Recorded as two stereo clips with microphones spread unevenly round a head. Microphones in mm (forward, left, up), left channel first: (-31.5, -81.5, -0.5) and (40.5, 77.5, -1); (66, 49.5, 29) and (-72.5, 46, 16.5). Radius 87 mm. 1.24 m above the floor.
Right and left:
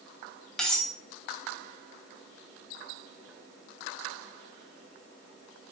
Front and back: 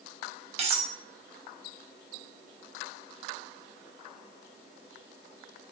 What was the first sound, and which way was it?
Cutlery clinking, 160° left.